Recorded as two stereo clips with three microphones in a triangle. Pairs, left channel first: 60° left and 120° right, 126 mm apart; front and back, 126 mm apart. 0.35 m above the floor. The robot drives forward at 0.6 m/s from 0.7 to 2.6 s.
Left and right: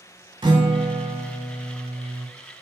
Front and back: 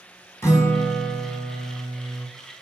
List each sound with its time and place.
0.4 s a guitar: 65° right, 0.6 m; by 2.3 s 145° right, 0.9 m